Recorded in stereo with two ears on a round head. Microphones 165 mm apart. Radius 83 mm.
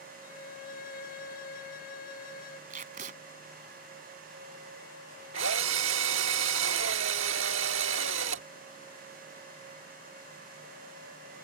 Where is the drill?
75° right (ahead or behind).